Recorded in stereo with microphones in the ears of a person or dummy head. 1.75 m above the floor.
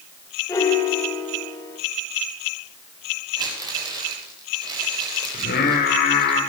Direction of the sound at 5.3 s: 50° left (ahead or behind).